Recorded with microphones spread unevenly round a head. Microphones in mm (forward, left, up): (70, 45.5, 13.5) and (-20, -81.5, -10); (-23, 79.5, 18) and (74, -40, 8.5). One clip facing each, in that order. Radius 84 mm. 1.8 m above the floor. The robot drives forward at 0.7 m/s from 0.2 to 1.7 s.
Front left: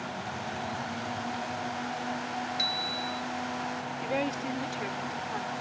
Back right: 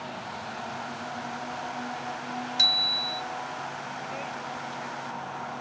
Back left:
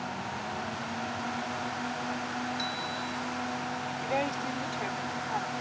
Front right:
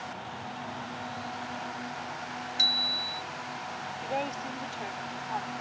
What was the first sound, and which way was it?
A bicycle bell, 95° right.